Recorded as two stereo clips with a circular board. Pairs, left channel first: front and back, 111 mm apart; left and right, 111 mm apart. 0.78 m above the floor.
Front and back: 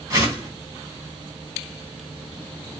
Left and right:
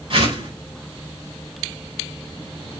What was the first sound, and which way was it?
A whoosh, 115° right.